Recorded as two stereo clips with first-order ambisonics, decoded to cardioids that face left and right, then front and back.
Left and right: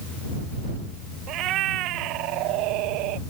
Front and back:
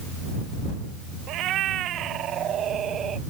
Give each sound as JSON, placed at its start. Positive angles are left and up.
{"t": 1.3, "sound": "a cat meowing", "azimuth_deg": -135}